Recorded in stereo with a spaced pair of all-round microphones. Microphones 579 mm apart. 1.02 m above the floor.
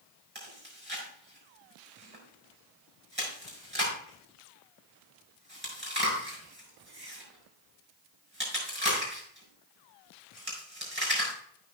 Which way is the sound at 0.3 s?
20° right (ahead or behind).